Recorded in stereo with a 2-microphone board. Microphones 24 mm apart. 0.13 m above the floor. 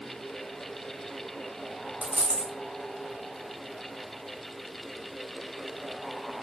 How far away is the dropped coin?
About 3 m.